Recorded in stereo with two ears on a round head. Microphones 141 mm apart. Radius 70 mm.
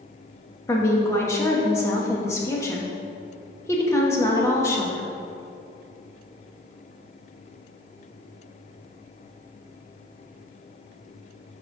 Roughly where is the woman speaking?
Centre.